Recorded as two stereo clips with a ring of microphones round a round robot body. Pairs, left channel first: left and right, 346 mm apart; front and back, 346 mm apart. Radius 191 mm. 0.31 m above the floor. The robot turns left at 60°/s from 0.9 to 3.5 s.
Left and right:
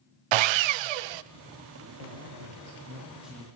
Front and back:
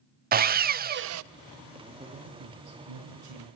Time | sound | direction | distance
0.3 | sawing | 110° right | 0.5 m
2.0 | a man speaking | 105° right | 8 m